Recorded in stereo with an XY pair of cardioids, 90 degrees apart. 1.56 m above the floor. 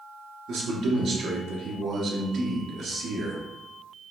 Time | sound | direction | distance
0.5 | a man speaking | 60° right | 1.4 m